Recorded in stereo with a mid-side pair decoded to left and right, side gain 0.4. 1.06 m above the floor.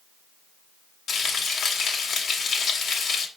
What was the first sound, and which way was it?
Frying, 65° left.